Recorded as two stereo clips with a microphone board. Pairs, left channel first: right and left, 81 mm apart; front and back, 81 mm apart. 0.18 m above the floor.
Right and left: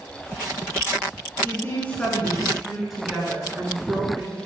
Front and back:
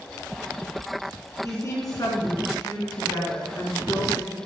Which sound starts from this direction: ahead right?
A woman speaking, at 1.4 s.